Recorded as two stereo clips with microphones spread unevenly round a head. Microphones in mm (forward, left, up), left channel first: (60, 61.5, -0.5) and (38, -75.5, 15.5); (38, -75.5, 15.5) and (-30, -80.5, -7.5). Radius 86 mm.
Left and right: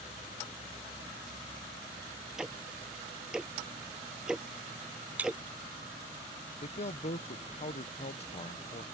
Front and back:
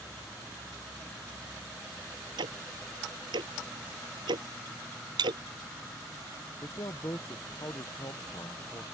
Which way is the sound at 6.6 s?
40° left.